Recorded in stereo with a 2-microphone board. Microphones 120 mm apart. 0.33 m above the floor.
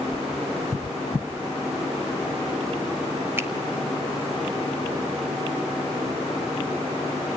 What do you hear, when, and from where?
3.4 s a finger snap: 20° right (ahead or behind), 1.1 m